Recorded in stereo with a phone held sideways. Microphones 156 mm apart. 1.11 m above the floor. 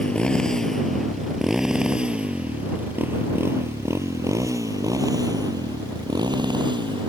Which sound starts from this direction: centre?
A motorcycle, at 0.0 s.